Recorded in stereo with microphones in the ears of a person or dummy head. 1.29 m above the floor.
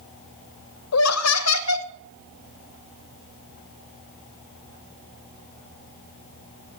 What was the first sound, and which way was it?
Laughter, 85° left.